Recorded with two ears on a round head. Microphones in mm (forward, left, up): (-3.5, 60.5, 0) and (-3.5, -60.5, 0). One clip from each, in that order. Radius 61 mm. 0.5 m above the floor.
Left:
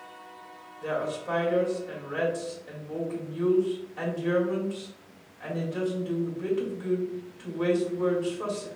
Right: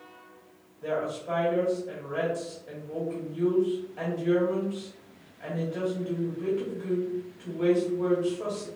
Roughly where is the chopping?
No chopping in this recording.